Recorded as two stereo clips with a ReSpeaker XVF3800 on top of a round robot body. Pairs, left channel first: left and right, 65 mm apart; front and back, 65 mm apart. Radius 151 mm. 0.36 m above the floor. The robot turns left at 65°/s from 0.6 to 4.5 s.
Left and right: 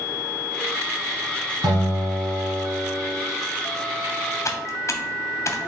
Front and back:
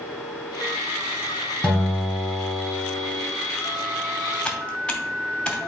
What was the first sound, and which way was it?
A guitar, 80° right.